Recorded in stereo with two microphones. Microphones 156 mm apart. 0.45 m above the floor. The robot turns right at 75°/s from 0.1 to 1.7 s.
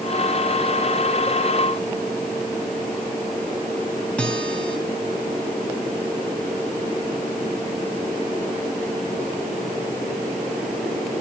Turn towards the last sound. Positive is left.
turn(degrees=5)  # may be behind; listen again after turning